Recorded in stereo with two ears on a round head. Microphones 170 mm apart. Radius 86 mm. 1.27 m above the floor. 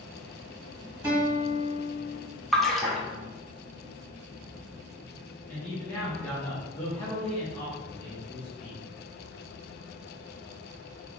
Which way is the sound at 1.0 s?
10° right (ahead or behind).